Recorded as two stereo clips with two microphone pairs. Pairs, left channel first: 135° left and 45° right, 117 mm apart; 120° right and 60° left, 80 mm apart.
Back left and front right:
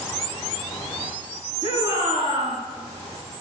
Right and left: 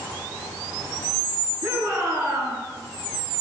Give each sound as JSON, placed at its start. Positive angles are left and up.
{"t": 1.6, "sound": "a shout", "azimuth_deg": -5, "distance_m": 9.0}